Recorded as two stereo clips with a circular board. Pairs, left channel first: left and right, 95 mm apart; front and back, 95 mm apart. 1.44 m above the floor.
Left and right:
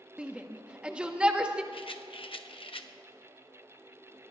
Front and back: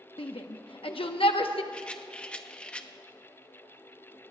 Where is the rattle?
75° left, 0.8 m.